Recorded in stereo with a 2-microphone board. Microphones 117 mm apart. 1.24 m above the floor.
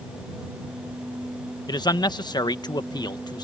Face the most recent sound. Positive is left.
turn(degrees=40)  # may be behind; listen again after turning